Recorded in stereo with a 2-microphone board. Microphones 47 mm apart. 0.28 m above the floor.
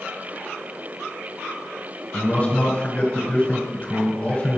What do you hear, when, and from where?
2.1 s a man speaking: 25° left (ahead or behind), 1.6 m